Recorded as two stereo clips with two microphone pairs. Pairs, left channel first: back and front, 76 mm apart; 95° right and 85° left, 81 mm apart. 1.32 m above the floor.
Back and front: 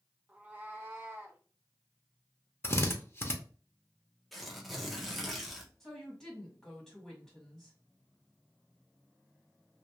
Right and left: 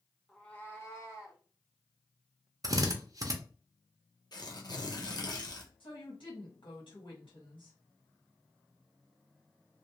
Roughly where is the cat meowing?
Ahead right.